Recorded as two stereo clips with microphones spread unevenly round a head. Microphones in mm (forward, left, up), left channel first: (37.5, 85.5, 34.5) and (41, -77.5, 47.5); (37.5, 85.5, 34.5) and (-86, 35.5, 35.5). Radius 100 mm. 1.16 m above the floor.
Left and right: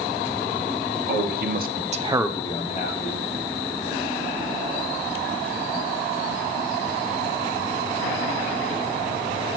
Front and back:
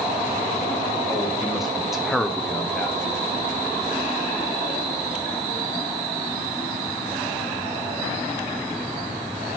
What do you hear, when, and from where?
1.1 s a man speaking: 70° right, 1.6 m; by 3.2 s 110° left, 1.3 m